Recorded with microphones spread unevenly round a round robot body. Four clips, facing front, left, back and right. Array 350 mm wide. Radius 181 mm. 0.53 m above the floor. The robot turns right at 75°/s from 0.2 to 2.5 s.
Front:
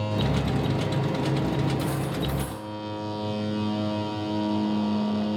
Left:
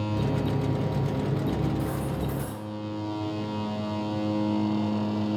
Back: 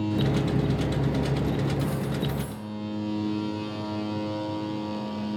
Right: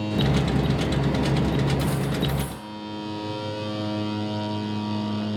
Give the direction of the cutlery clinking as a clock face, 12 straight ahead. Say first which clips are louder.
Right 4 dB, even; 2 o'clock.